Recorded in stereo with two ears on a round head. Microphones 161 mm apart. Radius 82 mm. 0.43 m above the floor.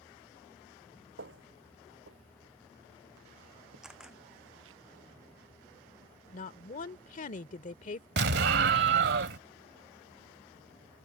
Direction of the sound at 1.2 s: 70° right (ahead or behind).